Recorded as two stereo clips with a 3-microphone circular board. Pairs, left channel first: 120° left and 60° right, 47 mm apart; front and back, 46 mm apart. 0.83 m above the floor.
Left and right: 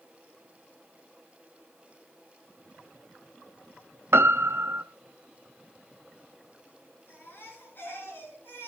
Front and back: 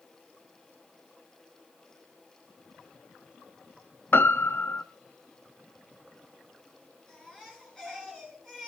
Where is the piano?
35° right, 0.8 m.